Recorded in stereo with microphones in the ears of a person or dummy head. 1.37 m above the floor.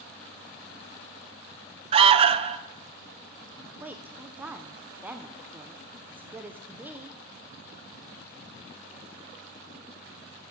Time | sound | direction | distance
1.9 | an alarm | 25° right (ahead or behind) | 0.5 m
3.8 | a woman speaking | 20° right (ahead or behind) | 0.6 m